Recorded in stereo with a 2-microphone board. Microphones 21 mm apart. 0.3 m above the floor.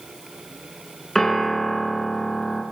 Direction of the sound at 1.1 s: 15° left (ahead or behind).